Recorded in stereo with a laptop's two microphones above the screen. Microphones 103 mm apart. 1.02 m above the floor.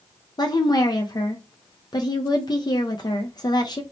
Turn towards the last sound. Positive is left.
turn(degrees=40)  # may be behind; listen again after turning